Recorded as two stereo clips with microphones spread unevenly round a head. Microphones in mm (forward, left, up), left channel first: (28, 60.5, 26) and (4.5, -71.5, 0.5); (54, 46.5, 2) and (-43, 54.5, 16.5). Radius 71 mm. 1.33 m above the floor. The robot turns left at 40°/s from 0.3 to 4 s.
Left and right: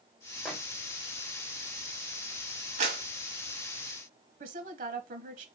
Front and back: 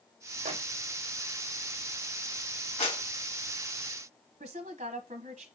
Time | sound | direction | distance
0.5 | a microwave | 170° left | 0.9 m
2.8 | a clap | 60° right | 1.8 m
4.4 | a woman speaking | 135° right | 0.9 m